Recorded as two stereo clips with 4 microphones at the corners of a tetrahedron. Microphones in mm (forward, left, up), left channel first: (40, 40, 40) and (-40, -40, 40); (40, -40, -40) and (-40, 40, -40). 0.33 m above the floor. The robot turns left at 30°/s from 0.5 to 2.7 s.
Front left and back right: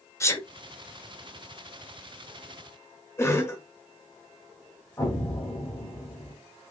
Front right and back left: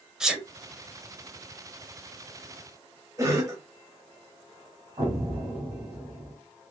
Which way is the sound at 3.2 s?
100° left.